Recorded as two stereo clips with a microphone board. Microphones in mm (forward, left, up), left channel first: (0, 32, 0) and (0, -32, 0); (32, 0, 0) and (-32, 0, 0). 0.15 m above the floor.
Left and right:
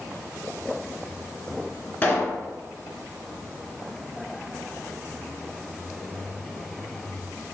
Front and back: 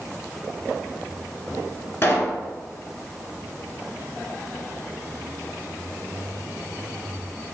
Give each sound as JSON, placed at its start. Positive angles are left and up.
{"t": 2.0, "sound": "a pop", "azimuth_deg": 35, "distance_m": 0.8}